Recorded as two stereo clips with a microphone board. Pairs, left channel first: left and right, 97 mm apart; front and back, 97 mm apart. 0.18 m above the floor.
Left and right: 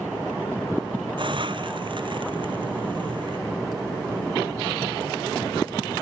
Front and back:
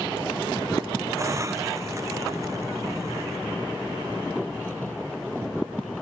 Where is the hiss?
125° right.